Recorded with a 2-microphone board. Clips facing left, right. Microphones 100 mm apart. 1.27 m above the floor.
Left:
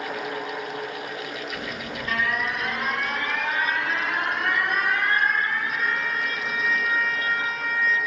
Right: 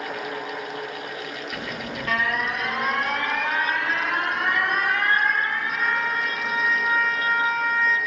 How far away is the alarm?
About 1.5 m.